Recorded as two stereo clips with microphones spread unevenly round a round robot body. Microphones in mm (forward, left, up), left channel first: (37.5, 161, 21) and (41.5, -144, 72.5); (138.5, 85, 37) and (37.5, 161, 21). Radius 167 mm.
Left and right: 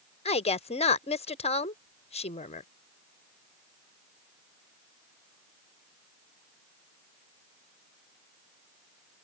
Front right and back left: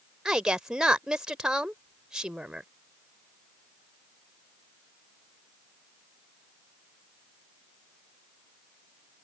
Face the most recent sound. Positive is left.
turn(degrees=75)